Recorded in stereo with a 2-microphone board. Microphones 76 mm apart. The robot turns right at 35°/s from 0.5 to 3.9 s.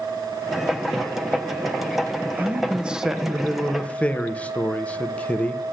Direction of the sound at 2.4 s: 35° right.